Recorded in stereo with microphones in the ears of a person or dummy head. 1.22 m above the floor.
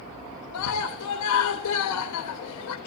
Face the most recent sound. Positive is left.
turn(degrees=85)